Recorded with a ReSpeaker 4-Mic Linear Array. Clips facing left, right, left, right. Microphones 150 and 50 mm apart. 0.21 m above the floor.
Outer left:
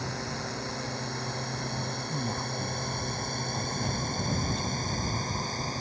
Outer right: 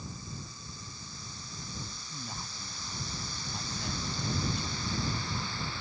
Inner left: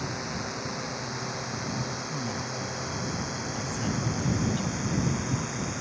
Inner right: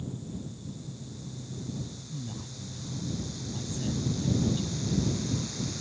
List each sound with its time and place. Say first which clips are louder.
0.0 s a drone: outer left 10 dB, inner left 6 dB; 75° left (ahead or behind); by 5.8 s 40° left (ahead or behind)
2.1 s a man speaking: outer left 12 dB, inner left 8 dB; 35° left (ahead or behind)